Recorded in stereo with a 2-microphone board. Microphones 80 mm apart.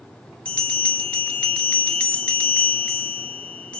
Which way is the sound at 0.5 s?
15° left (ahead or behind).